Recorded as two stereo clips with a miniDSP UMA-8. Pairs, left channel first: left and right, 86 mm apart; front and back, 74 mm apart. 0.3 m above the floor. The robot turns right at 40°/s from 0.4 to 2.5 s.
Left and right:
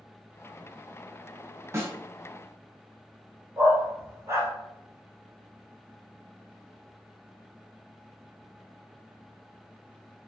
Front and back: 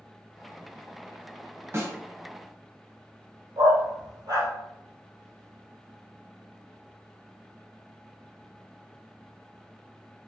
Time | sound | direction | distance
1.7 | a snare drum | 135° right | 1.4 m
3.6 | a dog barking | 150° right | 2 m